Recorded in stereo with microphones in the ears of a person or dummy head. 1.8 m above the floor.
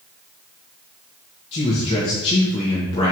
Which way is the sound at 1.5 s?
35° left (ahead or behind).